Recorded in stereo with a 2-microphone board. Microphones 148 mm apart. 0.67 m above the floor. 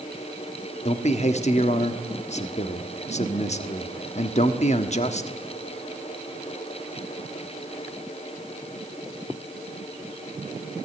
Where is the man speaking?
50° left (ahead or behind), 1.1 m.